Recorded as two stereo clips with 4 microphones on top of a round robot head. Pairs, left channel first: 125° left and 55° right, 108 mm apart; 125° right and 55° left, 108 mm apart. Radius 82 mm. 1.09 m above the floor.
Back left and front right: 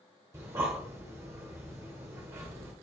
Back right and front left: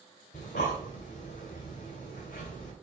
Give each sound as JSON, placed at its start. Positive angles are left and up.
{"t": 0.3, "sound": "breathing", "azimuth_deg": -120, "distance_m": 1.2}